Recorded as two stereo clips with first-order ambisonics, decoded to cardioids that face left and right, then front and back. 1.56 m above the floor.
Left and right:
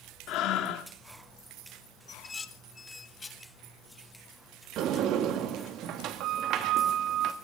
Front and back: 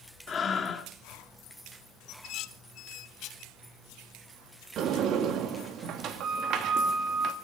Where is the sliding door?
130° right, 1.8 m.